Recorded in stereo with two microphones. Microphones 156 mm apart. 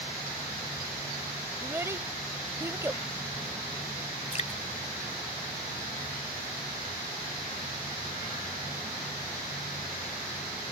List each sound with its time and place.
1.6 s a child speaking: 15° right (ahead or behind)
4.3 s dripping: 45° left (ahead or behind)